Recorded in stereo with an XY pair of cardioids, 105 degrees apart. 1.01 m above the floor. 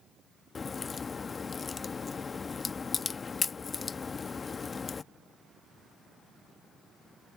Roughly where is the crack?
Ahead left.